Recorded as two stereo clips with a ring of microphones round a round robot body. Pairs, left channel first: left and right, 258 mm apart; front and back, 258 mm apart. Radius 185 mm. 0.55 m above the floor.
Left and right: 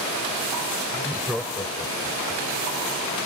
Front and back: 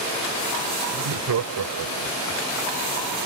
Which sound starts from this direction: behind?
Laughter, at 0.9 s.